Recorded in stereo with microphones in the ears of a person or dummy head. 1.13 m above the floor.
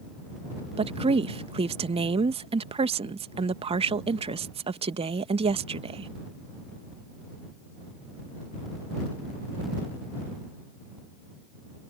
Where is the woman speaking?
35° right (ahead or behind).